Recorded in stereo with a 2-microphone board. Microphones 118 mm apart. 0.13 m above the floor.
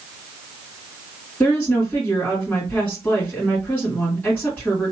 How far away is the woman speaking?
About 1.7 m.